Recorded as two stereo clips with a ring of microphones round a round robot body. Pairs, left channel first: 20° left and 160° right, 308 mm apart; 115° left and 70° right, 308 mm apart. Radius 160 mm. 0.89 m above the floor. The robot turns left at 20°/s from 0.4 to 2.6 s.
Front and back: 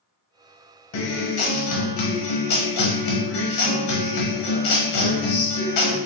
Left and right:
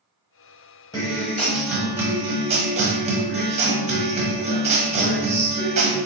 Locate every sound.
0.9 s a guitar: 35° left, 1.0 m; by 6.0 s straight ahead, 1.0 m